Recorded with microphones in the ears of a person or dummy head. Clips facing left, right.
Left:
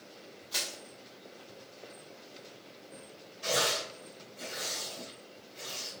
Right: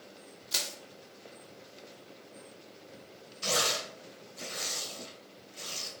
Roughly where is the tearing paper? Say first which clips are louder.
Left 1 dB; right.